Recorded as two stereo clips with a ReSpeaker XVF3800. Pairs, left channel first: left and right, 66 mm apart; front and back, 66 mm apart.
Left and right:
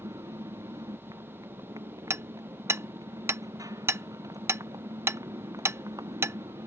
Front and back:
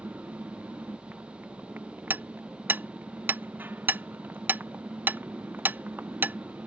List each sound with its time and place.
0.0 s a motorcycle: 120° right
2.1 s hammering: 125° right